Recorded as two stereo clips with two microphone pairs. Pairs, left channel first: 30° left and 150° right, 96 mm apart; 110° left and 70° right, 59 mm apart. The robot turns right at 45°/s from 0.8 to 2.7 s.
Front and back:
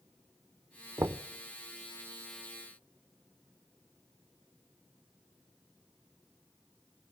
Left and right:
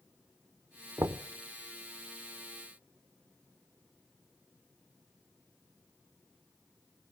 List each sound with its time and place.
1.0 s knocking: 100° right, 0.6 m; by 1.2 s 90° right, 0.6 m